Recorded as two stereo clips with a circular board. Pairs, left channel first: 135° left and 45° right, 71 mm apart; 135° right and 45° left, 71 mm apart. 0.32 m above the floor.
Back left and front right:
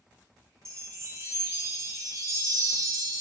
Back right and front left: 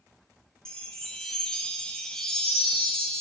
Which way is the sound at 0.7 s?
60° right.